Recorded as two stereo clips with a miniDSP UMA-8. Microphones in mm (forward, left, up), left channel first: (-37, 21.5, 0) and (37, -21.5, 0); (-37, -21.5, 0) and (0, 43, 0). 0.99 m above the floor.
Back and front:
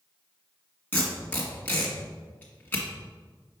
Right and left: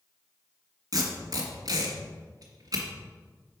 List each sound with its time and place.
0.9 s tape being pulled: 85° left, 1.8 m